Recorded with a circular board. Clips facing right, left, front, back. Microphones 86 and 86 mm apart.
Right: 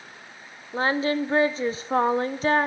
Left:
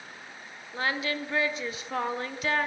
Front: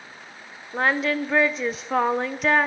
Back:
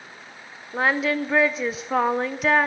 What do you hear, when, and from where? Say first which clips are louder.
0.7 s singing: right 7 dB, even; 95° right, 0.5 m